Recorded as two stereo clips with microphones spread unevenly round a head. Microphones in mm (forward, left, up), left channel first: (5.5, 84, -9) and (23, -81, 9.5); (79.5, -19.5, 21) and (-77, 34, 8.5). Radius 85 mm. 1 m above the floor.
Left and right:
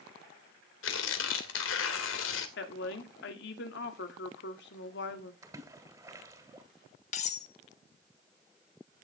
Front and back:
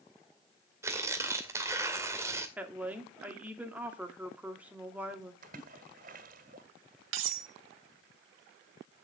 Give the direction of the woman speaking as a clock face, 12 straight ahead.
9 o'clock.